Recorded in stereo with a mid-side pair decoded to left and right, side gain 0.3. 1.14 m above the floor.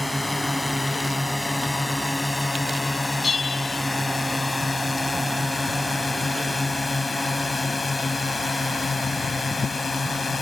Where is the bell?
40° left.